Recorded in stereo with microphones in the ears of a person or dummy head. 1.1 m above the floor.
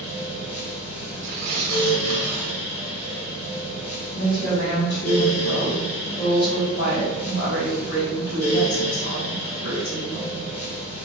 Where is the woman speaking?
55° left (ahead or behind), 1.4 m.